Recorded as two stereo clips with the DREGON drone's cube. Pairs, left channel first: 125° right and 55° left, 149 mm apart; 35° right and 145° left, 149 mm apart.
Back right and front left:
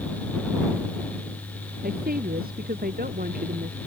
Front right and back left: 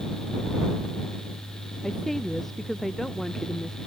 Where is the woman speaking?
55° left.